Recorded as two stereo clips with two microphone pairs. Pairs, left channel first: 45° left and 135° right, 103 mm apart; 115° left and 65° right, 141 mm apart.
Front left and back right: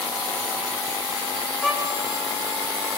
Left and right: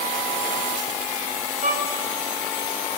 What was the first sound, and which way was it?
A violin, 50° right.